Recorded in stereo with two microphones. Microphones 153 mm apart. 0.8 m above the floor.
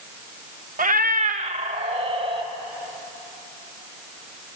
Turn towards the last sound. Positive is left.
turn(degrees=-40)  # may be behind; listen again after turning